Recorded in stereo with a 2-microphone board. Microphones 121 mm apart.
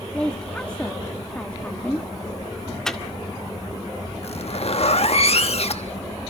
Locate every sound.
0.1 s a woman speaking: 10° left (ahead or behind), 1.5 m
2.9 s a microwave: 5° left (ahead or behind), 2.0 m
4.2 s a zipper: 55° left (ahead or behind), 1.2 m